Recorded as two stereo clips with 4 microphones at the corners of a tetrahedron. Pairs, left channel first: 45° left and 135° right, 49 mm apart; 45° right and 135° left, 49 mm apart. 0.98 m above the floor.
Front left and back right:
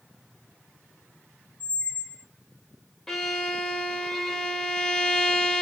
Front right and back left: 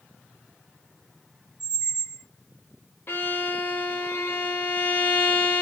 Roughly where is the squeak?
Ahead right.